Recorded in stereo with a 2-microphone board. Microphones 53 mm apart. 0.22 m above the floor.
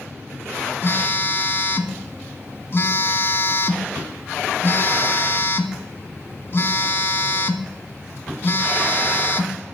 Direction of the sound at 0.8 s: 50° left (ahead or behind).